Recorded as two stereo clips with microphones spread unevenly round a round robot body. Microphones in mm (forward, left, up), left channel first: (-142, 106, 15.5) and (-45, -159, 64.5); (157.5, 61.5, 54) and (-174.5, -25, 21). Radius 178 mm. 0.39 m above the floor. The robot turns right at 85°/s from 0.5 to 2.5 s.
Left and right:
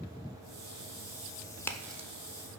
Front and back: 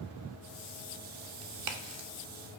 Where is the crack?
175° left, 0.7 m; by 2.1 s 130° right, 0.7 m.